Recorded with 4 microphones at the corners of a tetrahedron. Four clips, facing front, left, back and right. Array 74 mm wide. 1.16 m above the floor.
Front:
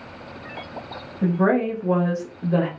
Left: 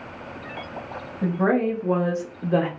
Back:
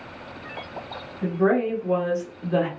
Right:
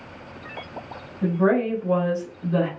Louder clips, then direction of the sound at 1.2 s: Right 1 dB, front 1 dB; 20° left.